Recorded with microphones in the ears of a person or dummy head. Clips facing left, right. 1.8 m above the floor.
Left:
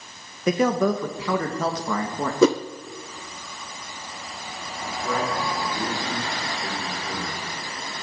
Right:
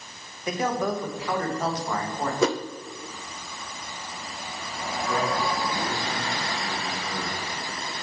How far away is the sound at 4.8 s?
About 7 m.